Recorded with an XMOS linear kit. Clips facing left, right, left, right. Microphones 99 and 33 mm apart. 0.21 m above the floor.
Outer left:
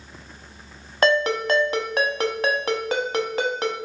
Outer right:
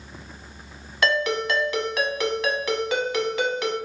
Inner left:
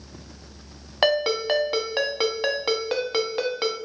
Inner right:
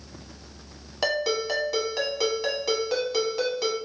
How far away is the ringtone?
About 0.8 m.